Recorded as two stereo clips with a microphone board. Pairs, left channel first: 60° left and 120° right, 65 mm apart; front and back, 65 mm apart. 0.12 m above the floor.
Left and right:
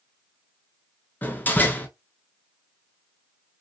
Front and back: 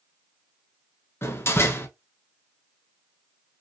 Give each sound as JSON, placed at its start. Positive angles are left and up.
{"t": 1.2, "sound": "a door slam", "azimuth_deg": 15, "distance_m": 1.0}